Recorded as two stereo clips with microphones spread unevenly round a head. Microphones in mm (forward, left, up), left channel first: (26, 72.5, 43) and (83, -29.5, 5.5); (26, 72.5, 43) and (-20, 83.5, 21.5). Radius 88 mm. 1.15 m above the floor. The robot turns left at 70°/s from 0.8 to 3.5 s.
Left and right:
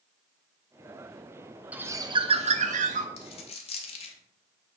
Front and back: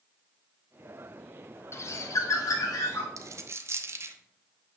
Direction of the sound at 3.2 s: 150° left.